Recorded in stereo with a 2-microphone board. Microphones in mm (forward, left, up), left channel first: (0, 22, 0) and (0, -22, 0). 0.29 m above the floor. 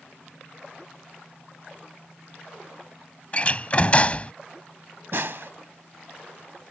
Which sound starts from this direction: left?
A door slam, at 3.3 s.